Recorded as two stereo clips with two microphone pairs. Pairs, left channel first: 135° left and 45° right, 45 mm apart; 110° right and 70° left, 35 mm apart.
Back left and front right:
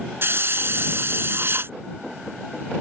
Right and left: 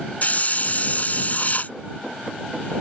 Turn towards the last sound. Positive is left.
turn(degrees=-70)